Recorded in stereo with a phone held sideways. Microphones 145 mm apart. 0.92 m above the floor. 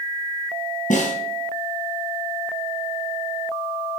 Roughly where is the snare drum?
Left.